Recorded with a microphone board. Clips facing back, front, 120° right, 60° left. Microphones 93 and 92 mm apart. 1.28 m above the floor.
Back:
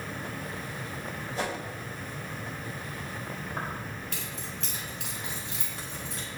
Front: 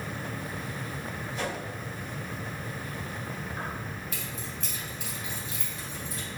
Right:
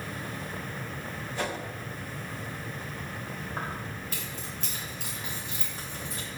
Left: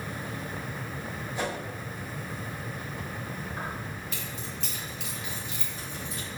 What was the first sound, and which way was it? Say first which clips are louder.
A whoosh: back 1 dB, left 1 dB; 135° left.